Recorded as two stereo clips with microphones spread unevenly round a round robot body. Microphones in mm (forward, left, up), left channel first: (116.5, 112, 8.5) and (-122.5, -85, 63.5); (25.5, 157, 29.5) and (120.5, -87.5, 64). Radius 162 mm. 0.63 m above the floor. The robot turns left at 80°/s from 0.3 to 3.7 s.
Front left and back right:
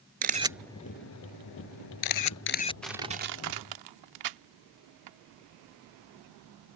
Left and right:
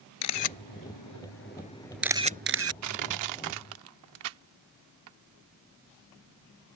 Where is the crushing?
45° right; by 5.2 s 115° right.